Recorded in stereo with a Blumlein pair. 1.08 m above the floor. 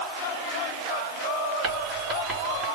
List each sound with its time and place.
1.6 s writing: 30° right, 2.5 m